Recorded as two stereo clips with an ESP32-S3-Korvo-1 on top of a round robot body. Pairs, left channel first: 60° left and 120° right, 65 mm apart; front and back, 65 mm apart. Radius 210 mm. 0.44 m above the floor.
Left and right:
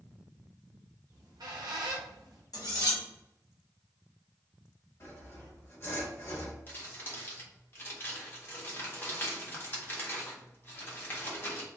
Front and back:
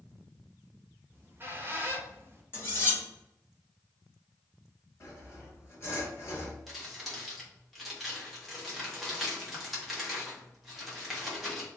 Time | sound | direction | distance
1.1 | a squeak | 125° right | 0.5 m
2.5 | cutlery clinking | 50° left | 1.1 m
5.0 | sawing | 30° left | 1.7 m
6.7 | crumpling | 90° left | 1.3 m